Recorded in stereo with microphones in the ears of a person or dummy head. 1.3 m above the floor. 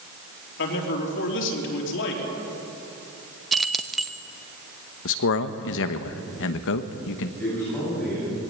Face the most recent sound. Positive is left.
turn(degrees=5)  # may be behind; listen again after turning